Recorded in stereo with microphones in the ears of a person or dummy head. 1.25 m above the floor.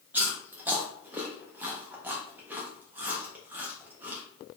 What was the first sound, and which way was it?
Chewing, 10° right (ahead or behind).